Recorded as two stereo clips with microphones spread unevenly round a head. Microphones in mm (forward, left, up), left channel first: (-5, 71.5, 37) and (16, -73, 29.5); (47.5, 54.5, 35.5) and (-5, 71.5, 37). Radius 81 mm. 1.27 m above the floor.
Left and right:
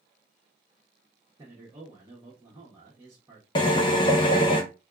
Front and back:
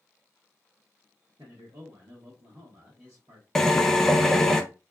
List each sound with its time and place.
1.4 s a man speaking: 150° right, 1.0 m
3.5 s a drill: 60° left, 0.5 m